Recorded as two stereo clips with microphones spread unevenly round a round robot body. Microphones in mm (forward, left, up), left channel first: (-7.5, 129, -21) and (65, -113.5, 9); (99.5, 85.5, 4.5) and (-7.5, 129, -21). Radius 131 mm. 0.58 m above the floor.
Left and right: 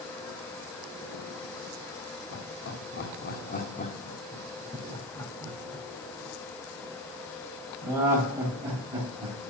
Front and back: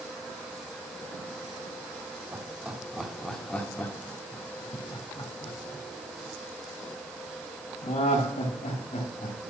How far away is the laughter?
About 1.5 m.